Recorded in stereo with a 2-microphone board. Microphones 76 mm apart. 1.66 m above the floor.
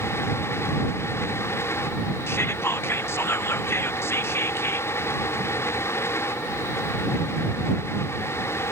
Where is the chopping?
No chopping in this recording.